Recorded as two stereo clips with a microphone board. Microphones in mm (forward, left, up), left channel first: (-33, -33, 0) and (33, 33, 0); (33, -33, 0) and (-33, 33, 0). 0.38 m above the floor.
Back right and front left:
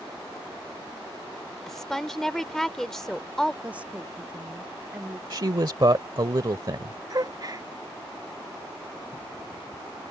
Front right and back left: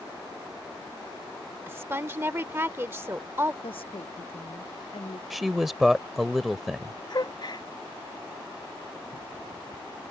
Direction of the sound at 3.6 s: 30° right.